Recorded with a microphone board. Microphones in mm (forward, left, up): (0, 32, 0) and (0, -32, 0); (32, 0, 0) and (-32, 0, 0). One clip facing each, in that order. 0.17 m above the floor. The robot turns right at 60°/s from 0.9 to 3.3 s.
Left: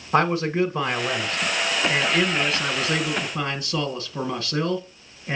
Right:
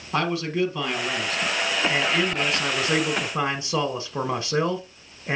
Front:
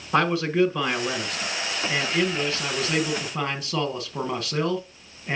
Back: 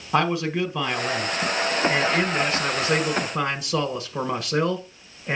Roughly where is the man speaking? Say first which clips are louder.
Left 4 dB, front 1 dB; left.